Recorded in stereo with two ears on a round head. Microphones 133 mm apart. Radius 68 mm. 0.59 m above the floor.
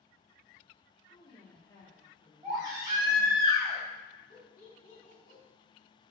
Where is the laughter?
60° left (ahead or behind), 1.2 m.